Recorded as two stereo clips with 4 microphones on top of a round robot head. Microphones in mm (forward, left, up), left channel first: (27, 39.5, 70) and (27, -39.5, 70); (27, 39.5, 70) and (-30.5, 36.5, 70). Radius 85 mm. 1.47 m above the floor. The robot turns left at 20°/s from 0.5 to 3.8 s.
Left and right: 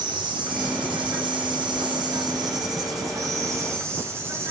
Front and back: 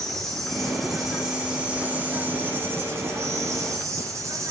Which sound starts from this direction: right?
An insect, at 0.0 s.